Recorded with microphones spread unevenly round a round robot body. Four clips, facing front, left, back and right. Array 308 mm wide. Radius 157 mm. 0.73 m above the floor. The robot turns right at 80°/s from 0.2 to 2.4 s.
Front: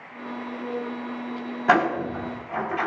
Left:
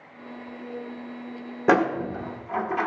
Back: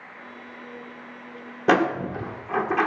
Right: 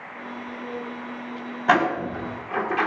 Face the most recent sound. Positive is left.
turn(degrees=-170)